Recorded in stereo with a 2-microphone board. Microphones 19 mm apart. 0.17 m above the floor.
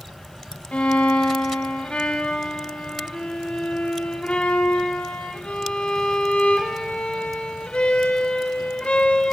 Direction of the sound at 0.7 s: 65° left (ahead or behind).